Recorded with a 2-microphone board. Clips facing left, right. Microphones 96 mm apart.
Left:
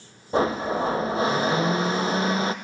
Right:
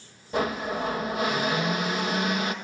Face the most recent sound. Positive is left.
turn(degrees=30)  # may be behind; listen again after turning